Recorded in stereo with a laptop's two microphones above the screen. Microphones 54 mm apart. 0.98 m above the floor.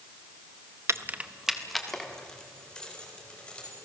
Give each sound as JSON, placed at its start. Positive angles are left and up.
{"t": 0.9, "sound": "keys jangling", "side_deg": -60, "distance_m": 0.6}